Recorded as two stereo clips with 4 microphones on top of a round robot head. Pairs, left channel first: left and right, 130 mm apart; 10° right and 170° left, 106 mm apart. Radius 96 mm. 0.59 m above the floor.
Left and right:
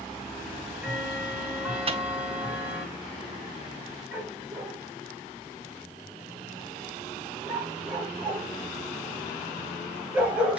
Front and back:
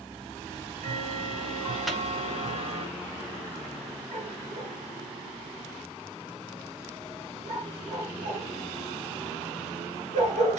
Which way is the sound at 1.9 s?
100° right.